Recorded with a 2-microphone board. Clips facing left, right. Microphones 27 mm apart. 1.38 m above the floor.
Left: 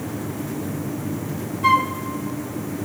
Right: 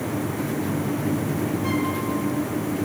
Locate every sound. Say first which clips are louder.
1.6 s a flute: left 11 dB; 75° left (ahead or behind), 0.7 m